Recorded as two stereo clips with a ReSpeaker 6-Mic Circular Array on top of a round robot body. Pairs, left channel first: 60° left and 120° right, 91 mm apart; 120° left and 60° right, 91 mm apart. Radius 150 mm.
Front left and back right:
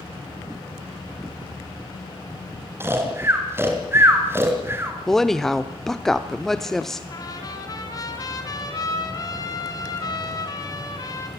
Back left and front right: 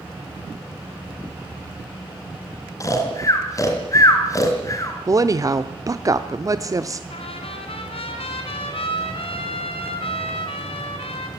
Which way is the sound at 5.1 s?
25° right.